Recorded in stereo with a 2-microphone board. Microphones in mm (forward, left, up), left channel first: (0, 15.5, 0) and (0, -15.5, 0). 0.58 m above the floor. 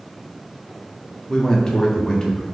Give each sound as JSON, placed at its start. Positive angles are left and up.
{"t": 1.3, "sound": "a man speaking", "side_deg": 20, "distance_m": 0.6}